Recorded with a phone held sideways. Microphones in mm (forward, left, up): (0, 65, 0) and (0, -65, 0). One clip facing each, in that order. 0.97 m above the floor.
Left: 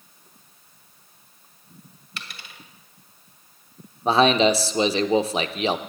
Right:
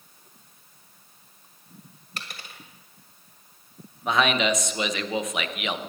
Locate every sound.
2.2 s a dropped coin: 45° right (ahead or behind), 2.0 m
4.0 s a man speaking: 30° left (ahead or behind), 0.8 m